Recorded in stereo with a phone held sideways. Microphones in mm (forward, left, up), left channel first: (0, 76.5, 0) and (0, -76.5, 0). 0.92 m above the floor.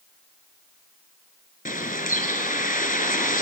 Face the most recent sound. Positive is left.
turn(degrees=65)  # may be behind; listen again after turning